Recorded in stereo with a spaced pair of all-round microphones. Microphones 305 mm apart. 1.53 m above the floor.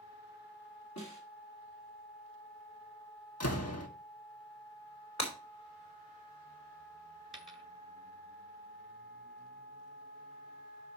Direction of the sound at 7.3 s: Centre (ahead or behind).